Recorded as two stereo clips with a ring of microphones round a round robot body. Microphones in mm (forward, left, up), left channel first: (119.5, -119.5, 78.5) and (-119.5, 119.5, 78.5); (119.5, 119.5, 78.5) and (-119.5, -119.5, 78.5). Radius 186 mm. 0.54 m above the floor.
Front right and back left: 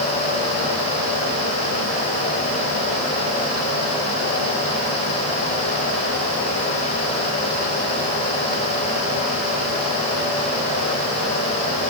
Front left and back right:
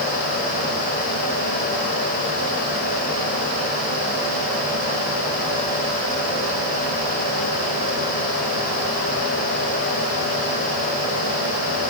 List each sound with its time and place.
Only background noise.